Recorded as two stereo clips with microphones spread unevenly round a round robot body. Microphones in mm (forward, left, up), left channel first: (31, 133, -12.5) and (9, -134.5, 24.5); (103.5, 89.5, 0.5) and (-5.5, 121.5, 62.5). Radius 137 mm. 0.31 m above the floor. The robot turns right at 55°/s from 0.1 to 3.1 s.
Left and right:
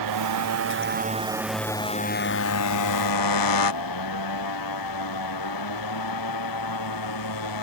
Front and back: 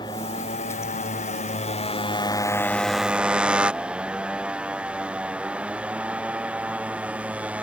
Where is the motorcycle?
85° right; by 7.6 s 85° left.